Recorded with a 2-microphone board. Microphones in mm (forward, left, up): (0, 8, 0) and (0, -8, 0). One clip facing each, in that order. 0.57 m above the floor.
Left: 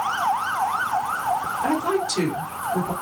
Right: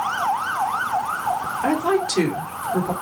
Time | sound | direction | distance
1.6 | a woman speaking | 35° right (ahead or behind) | 1.8 m